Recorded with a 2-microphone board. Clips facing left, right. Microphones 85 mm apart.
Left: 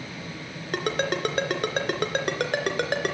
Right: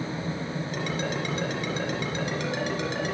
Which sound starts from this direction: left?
A ringtone, at 0.7 s.